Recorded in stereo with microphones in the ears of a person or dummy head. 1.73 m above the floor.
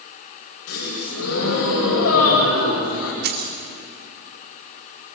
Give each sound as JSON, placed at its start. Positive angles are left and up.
{"t": 0.7, "sound": "a gasp", "side_deg": 85, "distance_m": 10.0}
{"t": 3.2, "sound": "keys jangling", "side_deg": -45, "distance_m": 2.5}